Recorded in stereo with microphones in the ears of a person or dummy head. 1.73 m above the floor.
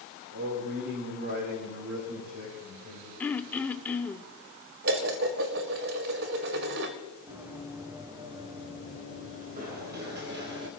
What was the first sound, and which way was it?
A man speaking, 50° right (ahead or behind).